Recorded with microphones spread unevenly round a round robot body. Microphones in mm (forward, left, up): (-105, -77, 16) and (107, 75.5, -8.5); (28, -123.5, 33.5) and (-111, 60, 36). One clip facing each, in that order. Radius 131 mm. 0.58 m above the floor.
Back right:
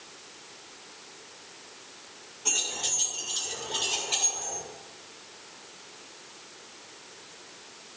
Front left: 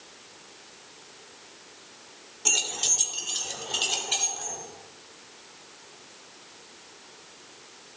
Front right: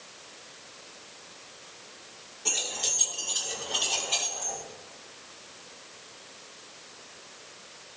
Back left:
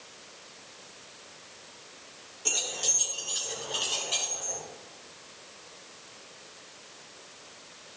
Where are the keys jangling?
50° left, 1.3 m; by 4.6 s 40° left, 3 m.